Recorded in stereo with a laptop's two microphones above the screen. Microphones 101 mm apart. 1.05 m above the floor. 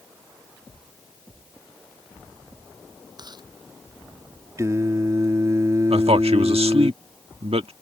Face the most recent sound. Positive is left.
turn(degrees=-75)  # may be behind; listen again after turning